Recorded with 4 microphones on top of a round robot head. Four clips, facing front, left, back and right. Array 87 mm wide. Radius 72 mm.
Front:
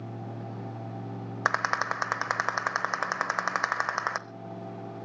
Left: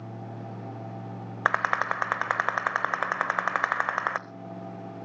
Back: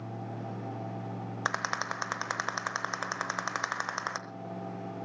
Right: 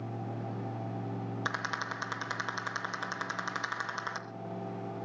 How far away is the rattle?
About 0.9 m.